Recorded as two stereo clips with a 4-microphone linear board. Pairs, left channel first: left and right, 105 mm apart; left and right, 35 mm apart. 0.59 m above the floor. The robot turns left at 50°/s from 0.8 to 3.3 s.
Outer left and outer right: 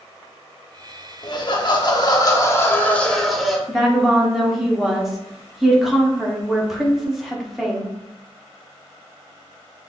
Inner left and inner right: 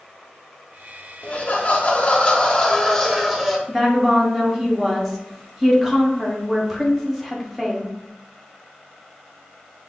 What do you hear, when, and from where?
1.2 s laughter: 105° left, 1.0 m; by 3.6 s straight ahead, 1.0 m
3.7 s a woman speaking: 5° right (ahead or behind), 1.1 m